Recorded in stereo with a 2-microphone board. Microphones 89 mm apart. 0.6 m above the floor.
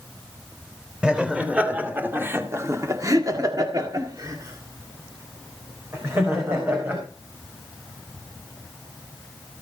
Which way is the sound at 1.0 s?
10° right (ahead or behind).